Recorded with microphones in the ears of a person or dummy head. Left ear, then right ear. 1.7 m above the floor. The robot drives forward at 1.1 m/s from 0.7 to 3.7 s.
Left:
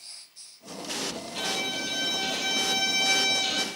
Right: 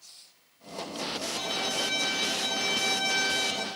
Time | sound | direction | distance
1.3 | a violin | 15° left (ahead or behind) | 3.5 m